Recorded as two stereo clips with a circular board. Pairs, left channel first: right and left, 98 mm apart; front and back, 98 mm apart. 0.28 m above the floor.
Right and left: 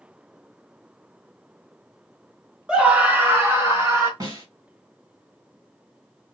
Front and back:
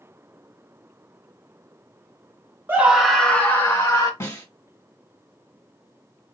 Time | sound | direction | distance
2.7 | a scream | 155° left | 0.9 m
4.2 | a snare drum | 55° left | 1.9 m